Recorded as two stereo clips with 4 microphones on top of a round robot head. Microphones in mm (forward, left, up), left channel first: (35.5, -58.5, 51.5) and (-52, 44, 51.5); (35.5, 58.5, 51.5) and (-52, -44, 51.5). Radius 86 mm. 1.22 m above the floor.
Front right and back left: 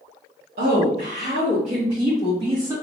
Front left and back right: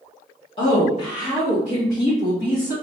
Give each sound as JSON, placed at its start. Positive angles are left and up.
{"t": 0.6, "sound": "a woman speaking", "azimuth_deg": 100, "distance_m": 1.2}